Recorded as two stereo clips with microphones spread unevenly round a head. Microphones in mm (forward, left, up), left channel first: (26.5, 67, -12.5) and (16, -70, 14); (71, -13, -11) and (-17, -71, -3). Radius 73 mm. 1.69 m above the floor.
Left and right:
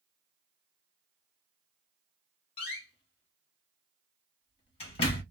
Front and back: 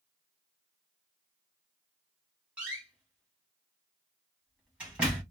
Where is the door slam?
140° left, 0.9 m.